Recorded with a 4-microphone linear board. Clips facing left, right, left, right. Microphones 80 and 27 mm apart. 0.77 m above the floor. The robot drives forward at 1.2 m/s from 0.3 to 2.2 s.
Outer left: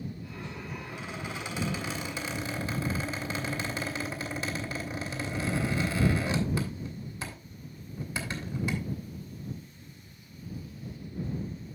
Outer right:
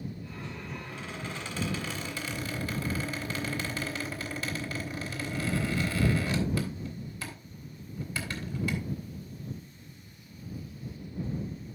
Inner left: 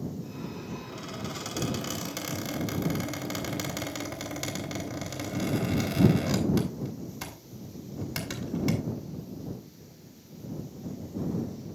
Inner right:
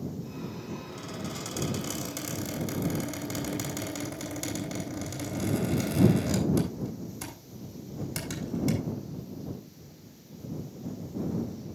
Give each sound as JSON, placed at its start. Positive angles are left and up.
{"t": 0.9, "sound": "a squeak", "side_deg": 15, "distance_m": 4.0}